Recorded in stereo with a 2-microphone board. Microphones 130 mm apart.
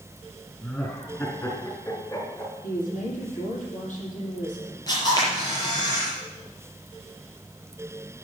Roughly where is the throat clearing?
I don't hear throat clearing.